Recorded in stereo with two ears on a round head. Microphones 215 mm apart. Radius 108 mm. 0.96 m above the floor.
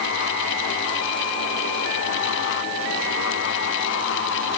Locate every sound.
Only background noise.